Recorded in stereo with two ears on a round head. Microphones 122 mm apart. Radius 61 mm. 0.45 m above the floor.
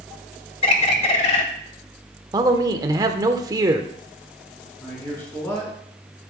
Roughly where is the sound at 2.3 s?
Right.